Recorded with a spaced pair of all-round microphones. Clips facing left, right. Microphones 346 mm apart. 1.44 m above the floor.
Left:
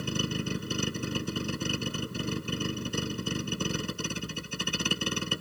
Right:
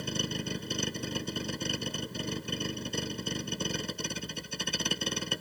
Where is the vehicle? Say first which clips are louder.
Left 3 dB; 15° left (ahead or behind).